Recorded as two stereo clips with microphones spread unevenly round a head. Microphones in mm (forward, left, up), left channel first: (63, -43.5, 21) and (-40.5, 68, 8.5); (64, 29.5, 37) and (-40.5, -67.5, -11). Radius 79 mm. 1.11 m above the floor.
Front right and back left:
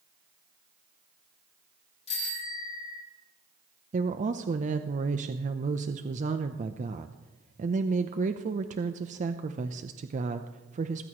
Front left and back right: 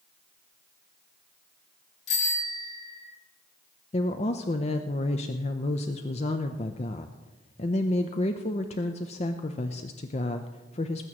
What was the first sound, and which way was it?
A bicycle bell, 5° left.